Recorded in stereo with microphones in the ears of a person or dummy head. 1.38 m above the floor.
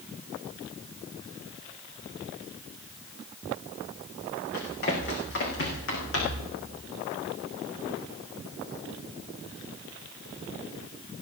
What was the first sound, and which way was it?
Running footsteps, 55° left (ahead or behind).